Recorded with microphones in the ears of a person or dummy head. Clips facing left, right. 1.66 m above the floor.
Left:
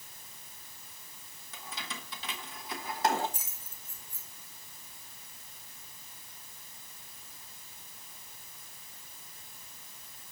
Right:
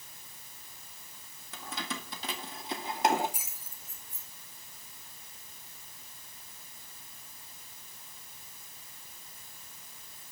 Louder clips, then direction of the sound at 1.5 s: Right 5 dB; 60° right (ahead or behind).